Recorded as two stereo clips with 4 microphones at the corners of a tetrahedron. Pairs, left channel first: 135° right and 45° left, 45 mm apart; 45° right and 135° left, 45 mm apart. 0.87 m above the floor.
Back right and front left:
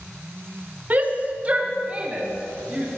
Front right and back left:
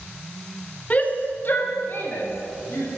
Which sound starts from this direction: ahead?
A shout, at 0.9 s.